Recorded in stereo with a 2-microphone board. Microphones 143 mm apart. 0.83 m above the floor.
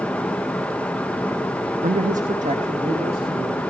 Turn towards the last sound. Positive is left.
turn(degrees=-45)  # may be behind; listen again after turning